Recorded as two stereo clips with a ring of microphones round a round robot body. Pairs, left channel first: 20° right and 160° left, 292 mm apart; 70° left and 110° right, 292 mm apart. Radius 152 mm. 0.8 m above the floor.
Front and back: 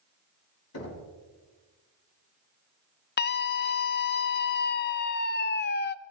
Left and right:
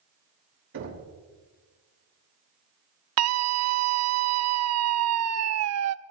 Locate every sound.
0.7 s knocking: 60° right, 5 m
3.2 s a scream: 80° right, 0.9 m